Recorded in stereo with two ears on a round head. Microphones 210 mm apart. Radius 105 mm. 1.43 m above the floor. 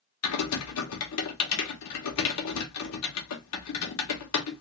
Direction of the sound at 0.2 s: 70° left (ahead or behind).